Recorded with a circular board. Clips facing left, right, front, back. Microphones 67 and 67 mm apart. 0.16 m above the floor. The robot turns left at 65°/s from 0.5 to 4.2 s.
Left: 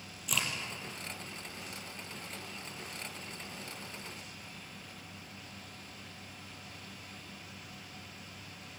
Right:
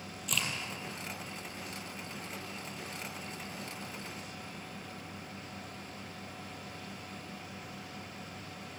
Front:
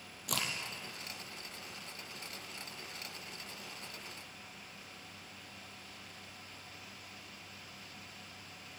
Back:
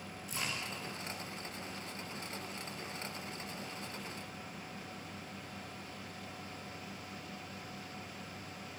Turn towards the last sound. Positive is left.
turn(degrees=120)